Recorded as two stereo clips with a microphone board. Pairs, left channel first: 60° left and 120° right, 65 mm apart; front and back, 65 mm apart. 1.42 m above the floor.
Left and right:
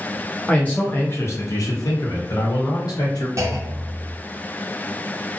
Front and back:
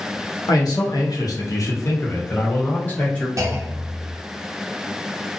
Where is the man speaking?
10° right, 0.8 m; by 3.3 s 70° left, 1.3 m.